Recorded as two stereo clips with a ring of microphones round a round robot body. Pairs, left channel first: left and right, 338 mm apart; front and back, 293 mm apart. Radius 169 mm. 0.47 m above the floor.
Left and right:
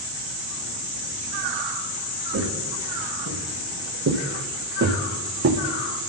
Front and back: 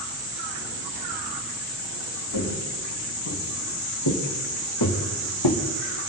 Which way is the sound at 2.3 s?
40° right.